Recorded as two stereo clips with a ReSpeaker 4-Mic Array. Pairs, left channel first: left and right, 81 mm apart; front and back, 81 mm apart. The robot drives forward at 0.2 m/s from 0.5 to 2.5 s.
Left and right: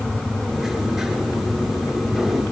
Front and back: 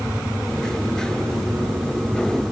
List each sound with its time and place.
Only background noise.